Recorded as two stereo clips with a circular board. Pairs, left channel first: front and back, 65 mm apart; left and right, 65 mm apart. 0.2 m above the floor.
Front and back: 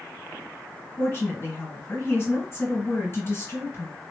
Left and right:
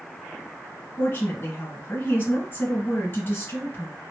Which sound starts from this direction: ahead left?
A woman speaking, at 1.0 s.